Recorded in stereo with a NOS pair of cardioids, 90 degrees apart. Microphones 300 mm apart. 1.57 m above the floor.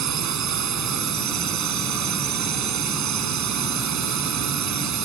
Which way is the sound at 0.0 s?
65° right.